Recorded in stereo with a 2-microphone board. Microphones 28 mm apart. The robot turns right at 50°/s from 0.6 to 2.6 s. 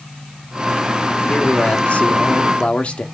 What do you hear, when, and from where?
1.3 s a man speaking: 60° left, 1.0 m; by 3.0 s 125° left, 1.0 m